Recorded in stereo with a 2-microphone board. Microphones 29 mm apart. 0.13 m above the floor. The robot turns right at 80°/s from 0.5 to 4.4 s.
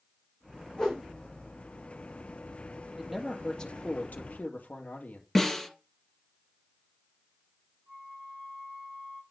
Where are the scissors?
No scissors in this recording.